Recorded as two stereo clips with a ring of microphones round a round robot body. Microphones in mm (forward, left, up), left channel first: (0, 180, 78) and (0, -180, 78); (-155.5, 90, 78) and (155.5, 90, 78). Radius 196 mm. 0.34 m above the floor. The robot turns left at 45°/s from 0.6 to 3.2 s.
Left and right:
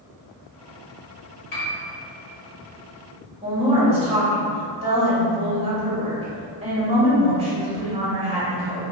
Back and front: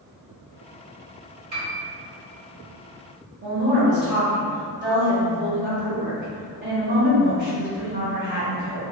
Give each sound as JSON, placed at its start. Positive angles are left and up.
{"t": 1.5, "sound": "a piano", "azimuth_deg": 60, "distance_m": 1.6}
{"t": 3.4, "sound": "a woman speaking", "azimuth_deg": -25, "distance_m": 1.6}